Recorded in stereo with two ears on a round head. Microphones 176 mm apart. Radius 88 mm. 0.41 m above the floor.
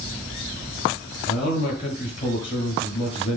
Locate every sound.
1.3 s a man speaking: 30° left (ahead or behind), 7.5 m